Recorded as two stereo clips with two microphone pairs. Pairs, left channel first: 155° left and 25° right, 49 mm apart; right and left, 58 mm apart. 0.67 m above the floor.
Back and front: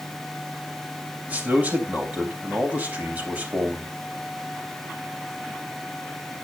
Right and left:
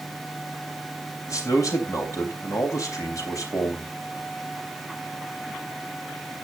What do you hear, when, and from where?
1.3 s a man speaking: 80° right, 3.5 m